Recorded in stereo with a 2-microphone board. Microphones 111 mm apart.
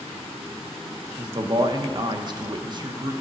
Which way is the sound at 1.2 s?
40° right (ahead or behind).